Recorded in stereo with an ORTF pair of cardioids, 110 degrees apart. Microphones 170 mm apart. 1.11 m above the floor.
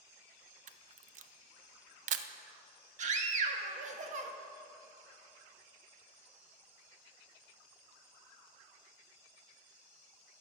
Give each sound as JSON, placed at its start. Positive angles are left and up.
{"t": 0.7, "sound": "a camera shutter", "azimuth_deg": -50, "distance_m": 0.6}
{"t": 3.0, "sound": "a scream", "azimuth_deg": -45, "distance_m": 1.3}